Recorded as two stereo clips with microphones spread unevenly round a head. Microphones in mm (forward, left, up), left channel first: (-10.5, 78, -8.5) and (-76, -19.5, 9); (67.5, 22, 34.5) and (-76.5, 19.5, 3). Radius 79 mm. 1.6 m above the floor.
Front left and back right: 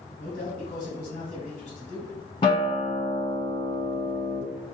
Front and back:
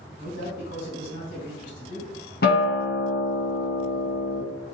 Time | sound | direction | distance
0.2 | a man speaking | straight ahead | 1.8 m
2.4 | a guitar | 10° right | 0.7 m